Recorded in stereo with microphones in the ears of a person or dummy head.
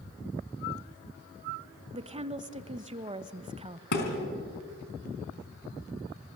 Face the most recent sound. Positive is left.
turn(degrees=60)  # may be behind; listen again after turning